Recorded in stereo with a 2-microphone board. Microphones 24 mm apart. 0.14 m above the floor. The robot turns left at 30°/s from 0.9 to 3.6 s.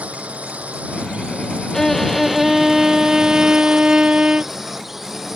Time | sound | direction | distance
0.0 | a drone | 85° right | ?
1.7 | a violin | 15° left | ?